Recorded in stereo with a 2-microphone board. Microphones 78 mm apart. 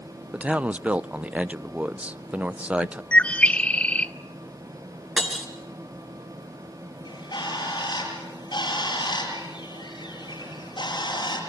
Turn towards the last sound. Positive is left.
turn(degrees=65)  # may be behind; listen again after turning